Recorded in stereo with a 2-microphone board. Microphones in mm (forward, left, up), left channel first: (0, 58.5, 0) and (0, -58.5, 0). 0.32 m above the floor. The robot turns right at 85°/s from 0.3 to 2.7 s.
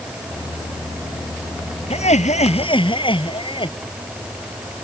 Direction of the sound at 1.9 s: 65° left.